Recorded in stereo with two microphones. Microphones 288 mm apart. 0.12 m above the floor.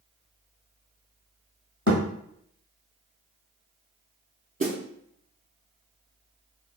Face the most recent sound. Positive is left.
turn(degrees=-30)  # may be behind; listen again after turning